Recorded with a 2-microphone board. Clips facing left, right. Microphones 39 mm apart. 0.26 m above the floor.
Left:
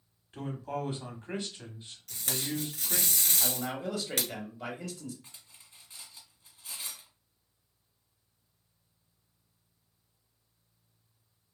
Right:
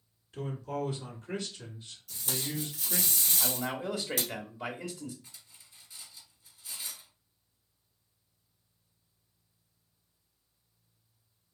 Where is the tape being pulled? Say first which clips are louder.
Left 1 dB; 70° left (ahead or behind), 1.1 m.